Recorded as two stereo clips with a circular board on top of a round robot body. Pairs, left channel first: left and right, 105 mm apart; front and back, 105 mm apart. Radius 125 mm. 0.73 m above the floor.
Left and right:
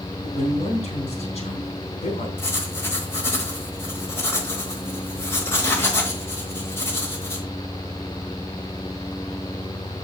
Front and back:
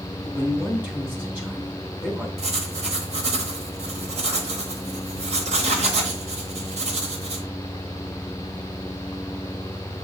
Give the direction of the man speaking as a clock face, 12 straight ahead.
8 o'clock.